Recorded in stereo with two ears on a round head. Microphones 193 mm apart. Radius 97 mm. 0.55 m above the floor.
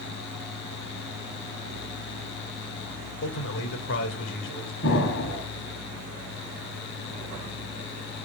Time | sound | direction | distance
3.2 | a man speaking | 60° left (ahead or behind) | 2.5 m
4.8 | an explosion | 60° left (ahead or behind) | 4.5 m